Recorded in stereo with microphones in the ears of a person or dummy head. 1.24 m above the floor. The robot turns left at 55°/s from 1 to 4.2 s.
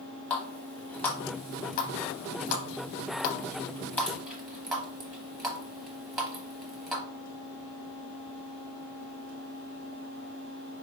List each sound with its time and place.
0.3 s a running tap: 10° left (ahead or behind), 1.0 m; by 7.0 s 5° right (ahead or behind), 1.0 m